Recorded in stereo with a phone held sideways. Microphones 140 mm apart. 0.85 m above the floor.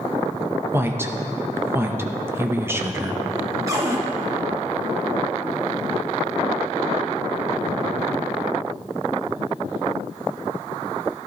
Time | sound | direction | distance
0.7 | a woman speaking | 15° right (ahead or behind) | 0.8 m
3.7 | a cupboard door | 20° right (ahead or behind) | 1.7 m